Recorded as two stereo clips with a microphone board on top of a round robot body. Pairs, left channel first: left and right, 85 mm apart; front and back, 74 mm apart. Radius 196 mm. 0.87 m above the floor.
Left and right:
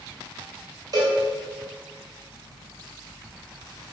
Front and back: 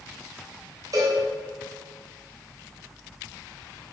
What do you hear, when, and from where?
0.9 s a cowbell: 140° right, 2.5 m